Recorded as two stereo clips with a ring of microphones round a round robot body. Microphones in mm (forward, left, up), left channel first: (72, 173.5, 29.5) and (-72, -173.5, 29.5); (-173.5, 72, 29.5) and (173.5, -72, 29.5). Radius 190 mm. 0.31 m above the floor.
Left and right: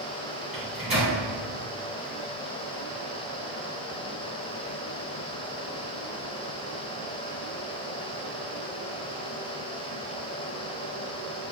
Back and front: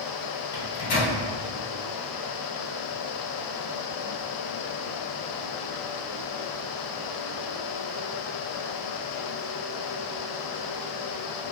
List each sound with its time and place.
0.5 s a microwave: 160° left, 1.8 m